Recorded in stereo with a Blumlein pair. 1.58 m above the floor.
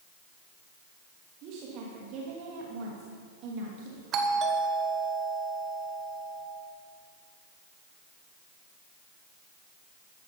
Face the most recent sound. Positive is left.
turn(degrees=-30)